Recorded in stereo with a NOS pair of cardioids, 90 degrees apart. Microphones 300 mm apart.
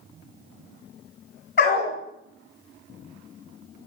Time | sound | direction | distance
1.6 | a dog barking | 40° left | 3 m